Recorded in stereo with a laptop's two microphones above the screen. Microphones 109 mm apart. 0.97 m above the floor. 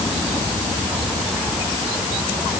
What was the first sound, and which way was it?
Only background noise.